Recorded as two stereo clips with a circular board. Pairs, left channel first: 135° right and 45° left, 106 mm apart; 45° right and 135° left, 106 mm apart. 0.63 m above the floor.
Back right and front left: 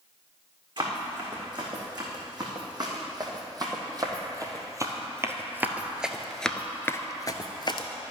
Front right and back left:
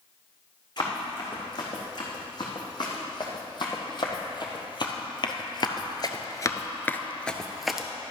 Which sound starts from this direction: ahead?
Running footsteps, at 0.8 s.